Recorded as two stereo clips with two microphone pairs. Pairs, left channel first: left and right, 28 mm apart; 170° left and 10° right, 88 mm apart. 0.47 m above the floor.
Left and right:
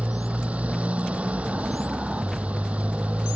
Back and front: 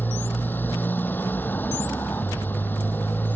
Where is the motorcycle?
120° right.